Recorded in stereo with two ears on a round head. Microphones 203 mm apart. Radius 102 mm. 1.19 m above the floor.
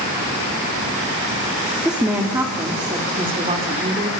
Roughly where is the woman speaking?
Centre.